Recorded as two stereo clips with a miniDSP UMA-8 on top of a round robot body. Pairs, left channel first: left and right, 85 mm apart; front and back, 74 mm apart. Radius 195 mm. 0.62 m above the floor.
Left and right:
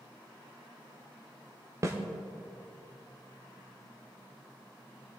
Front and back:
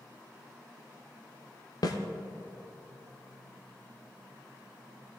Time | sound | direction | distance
1.8 | a snare drum | 35° right | 0.6 m